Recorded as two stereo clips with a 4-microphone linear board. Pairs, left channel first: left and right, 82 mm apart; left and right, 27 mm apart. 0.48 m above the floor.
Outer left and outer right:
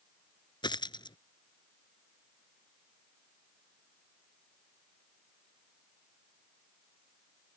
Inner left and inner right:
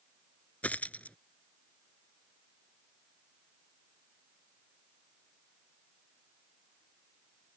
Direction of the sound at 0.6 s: 70° left (ahead or behind).